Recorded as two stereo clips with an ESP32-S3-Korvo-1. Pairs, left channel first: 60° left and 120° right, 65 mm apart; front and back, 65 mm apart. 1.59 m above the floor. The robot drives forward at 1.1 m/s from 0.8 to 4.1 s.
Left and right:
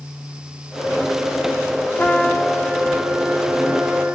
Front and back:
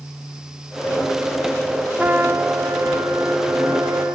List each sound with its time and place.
2.0 s a trumpet: 120° left, 1.0 m; by 4.1 s 165° left, 3 m